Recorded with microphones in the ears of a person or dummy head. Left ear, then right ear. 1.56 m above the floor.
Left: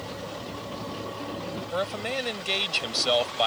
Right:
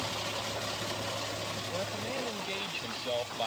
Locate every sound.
1.7 s a man speaking: 55° left (ahead or behind)